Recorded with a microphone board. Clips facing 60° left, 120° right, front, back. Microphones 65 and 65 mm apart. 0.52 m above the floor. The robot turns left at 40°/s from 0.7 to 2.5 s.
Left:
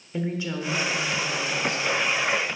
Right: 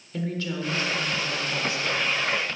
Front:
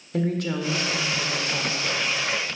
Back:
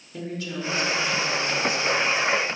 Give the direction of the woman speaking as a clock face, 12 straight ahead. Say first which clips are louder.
Left 1 dB, front 7 dB; 12 o'clock.